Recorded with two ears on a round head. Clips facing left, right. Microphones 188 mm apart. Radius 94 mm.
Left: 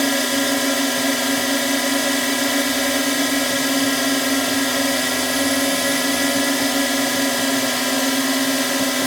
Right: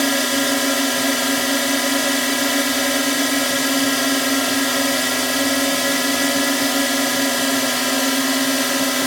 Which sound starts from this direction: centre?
A drone, at 0.0 s.